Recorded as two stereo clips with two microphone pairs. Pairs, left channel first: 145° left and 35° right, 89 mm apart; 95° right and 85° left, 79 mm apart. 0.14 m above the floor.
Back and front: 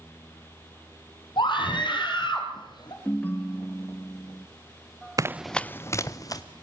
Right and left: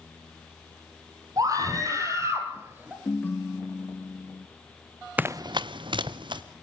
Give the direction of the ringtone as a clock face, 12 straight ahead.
5 o'clock.